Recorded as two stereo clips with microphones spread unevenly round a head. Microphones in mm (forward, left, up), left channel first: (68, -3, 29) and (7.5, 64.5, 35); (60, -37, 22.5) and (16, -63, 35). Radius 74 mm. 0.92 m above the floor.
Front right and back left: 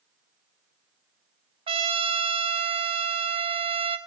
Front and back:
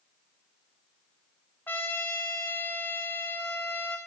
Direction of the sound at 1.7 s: 105° left.